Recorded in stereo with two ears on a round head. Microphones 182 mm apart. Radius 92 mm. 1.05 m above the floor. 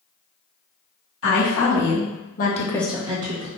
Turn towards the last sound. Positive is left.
turn(degrees=-55)  # may be behind; listen again after turning